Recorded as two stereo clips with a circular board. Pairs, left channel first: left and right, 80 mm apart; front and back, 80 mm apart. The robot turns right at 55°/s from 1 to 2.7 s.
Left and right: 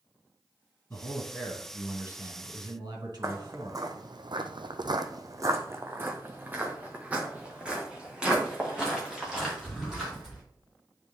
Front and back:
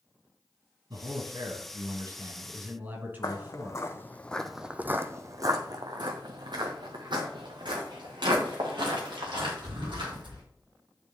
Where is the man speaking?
150° left, 3 m; by 3.8 s 115° right, 3 m.